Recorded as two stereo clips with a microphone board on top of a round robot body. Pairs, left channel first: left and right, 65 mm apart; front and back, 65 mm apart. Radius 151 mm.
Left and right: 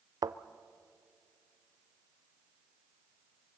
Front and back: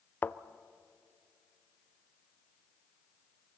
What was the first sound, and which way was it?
A thud, 65° right.